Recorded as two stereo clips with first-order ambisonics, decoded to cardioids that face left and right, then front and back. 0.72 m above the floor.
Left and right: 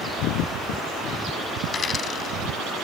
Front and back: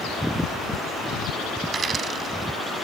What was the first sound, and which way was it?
A dropped coin, 130° left.